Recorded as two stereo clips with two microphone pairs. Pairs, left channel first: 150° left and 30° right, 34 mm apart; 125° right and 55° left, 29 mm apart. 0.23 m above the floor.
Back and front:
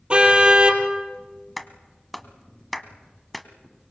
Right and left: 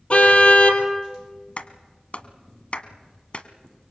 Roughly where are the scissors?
No scissors in this recording.